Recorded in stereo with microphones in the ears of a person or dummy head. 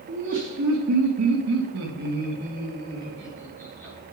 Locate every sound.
0.1 s laughter: 55° right (ahead or behind), 3 m; by 4.0 s 10° right (ahead or behind), 3.5 m